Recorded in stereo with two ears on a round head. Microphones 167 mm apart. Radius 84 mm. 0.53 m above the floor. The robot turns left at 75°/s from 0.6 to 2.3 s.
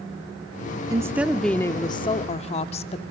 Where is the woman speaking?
145° right, 0.7 m; by 3.0 s 110° left, 0.7 m.